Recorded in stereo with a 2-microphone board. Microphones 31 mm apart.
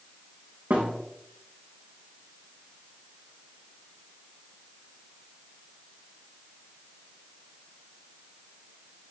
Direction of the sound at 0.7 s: 80° right.